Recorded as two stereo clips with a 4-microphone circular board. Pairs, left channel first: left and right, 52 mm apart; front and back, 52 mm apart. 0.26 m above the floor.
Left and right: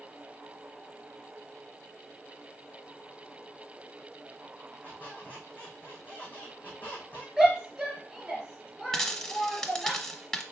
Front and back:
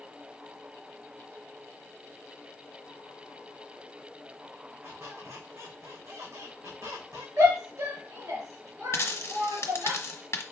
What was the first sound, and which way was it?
A squeak, 150° left.